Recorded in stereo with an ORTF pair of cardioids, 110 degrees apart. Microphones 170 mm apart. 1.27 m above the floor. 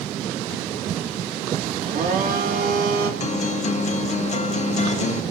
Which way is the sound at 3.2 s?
45° left.